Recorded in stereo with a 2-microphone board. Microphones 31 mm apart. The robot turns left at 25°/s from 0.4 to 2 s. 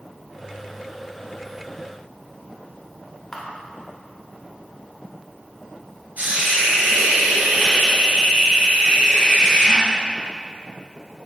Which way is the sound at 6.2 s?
80° right.